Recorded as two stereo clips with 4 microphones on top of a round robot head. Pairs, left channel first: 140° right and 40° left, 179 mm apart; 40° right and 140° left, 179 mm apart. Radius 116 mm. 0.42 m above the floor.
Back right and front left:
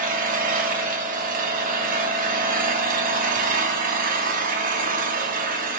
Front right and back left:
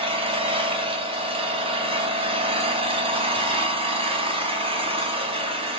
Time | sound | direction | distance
0.0 | an engine running | 80° left | 3.5 m